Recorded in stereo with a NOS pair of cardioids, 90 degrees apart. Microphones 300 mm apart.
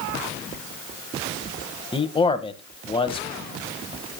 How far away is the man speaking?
About 1.9 m.